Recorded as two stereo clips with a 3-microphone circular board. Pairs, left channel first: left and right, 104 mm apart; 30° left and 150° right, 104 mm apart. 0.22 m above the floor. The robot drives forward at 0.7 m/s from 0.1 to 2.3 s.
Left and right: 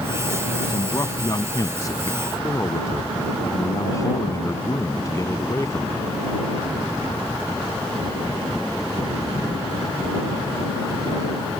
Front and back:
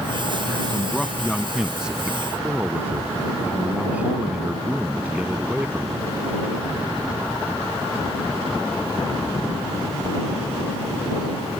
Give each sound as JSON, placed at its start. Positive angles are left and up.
{"t": 0.7, "sound": "a man speaking", "azimuth_deg": 100}